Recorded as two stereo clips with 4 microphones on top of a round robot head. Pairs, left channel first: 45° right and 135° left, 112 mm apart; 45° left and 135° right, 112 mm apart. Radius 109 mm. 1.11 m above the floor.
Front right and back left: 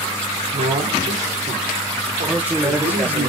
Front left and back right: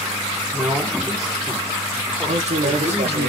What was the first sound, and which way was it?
A man speaking, 160° left.